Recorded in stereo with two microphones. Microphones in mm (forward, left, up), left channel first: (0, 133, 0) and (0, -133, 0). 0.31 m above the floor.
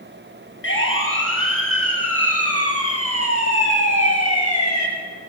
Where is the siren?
50° left (ahead or behind), 7.5 m; by 4.9 s 75° left (ahead or behind), 7 m.